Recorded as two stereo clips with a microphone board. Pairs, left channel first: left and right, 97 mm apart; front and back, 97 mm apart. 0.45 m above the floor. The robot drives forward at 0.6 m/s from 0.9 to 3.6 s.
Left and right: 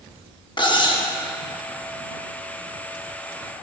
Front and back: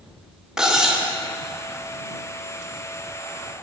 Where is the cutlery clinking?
100° left, 0.5 m; by 1.1 s 110° left, 0.6 m.